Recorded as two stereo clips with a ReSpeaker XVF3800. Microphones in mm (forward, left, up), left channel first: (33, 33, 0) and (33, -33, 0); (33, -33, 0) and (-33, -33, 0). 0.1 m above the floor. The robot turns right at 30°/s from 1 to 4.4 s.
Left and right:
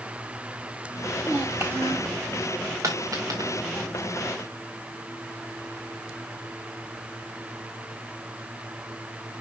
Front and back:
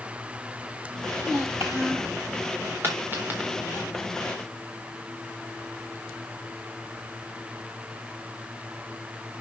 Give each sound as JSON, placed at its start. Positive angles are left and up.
{"t": 1.2, "sound": "a child speaking", "azimuth_deg": -155, "distance_m": 2.0}
{"t": 2.8, "sound": "a dropped coin", "azimuth_deg": -130, "distance_m": 4.0}